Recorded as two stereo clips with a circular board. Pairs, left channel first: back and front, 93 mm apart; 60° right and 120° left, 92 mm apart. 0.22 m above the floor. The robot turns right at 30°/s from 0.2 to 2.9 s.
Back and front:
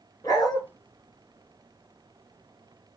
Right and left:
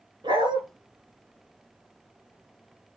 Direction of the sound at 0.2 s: 135° left.